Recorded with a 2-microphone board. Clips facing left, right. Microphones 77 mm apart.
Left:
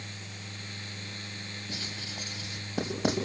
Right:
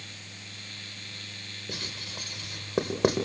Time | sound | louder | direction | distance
1.7 | writing | right 3 dB | 65° right (ahead or behind) | 3.5 m